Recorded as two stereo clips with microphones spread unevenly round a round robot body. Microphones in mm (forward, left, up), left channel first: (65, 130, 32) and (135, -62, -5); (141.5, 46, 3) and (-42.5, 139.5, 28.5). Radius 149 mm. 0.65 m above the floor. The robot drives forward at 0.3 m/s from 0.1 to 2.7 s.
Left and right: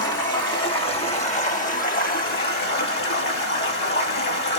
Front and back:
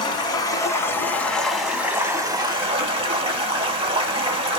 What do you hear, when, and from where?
0.0 s running water: 45° left, 1.1 m; by 4.6 s 95° left, 0.8 m